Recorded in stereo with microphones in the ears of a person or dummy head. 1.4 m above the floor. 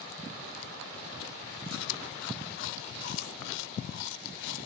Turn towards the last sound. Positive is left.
turn(degrees=70)  # may be behind; listen again after turning